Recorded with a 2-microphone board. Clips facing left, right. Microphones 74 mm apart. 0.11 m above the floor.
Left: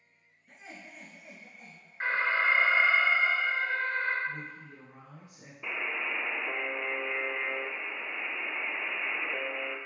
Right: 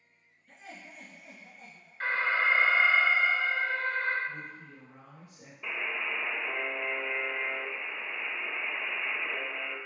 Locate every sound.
0.5 s laughter: 10° left (ahead or behind), 1.3 m; by 2.2 s 60° left (ahead or behind), 2.5 m
2.0 s an alarm: 20° left (ahead or behind), 1.3 m
4.3 s a woman speaking: 25° left (ahead or behind), 1.6 m
5.6 s a buzzer: 15° left (ahead or behind), 0.5 m